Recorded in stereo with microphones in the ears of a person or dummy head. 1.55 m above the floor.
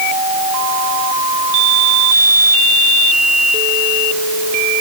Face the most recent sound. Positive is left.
No sound to turn to.